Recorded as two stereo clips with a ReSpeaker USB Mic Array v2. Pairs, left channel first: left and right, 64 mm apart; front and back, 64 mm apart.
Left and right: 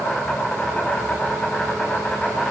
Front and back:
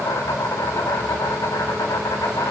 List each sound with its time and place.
0.0 s an insect: 15° left, 4.5 m